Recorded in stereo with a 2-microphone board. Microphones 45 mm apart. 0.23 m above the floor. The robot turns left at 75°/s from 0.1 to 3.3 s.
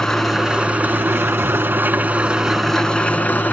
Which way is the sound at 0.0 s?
10° left.